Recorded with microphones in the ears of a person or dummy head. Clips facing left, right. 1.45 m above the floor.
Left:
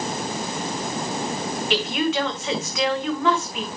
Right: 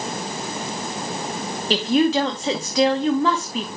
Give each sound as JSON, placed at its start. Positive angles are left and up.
{"t": 1.7, "sound": "a woman speaking", "side_deg": -30, "distance_m": 2.0}